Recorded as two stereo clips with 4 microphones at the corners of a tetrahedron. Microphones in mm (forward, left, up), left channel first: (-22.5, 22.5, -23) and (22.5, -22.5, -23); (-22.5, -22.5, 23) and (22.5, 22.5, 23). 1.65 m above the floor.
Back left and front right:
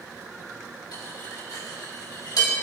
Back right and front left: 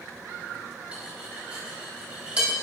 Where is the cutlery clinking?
120° left, 5.5 m.